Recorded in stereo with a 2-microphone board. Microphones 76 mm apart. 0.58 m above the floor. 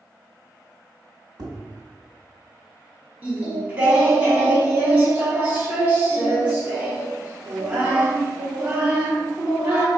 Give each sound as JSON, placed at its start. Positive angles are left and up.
{"t": 1.4, "sound": "tapping", "side_deg": -60, "distance_m": 1.5}
{"t": 3.2, "sound": "singing", "side_deg": -20, "distance_m": 1.4}